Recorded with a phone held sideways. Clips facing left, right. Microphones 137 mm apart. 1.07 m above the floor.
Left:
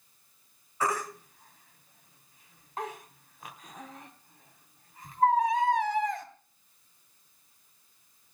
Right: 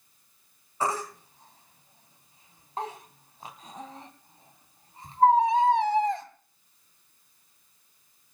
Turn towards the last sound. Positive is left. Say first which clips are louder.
# right 1 dB
turn(degrees=-30)  # may be behind; listen again after turning